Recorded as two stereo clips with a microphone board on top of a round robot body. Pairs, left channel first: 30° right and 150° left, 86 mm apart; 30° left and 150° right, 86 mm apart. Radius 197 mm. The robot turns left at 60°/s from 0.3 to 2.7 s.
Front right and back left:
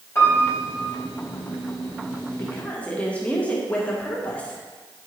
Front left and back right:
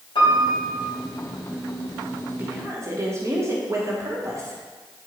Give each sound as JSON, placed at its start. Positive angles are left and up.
{"t": 0.1, "sound": "a piano", "azimuth_deg": 30, "distance_m": 3.0}
{"t": 2.4, "sound": "a woman speaking", "azimuth_deg": -85, "distance_m": 1.8}